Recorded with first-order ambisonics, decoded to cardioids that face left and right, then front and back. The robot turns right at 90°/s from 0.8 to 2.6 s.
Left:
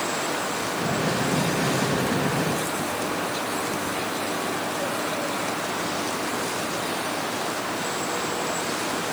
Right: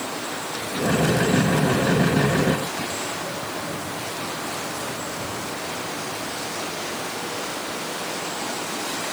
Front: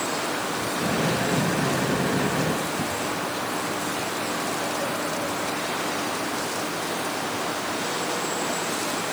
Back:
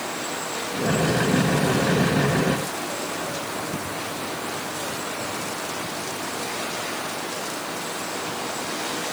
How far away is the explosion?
I don't hear an explosion.